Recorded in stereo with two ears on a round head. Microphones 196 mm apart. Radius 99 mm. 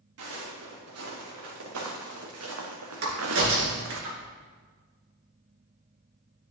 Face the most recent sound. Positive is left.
turn(degrees=-70)  # may be behind; listen again after turning